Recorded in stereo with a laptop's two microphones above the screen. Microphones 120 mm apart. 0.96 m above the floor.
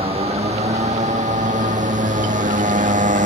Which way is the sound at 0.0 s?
50° right (ahead or behind).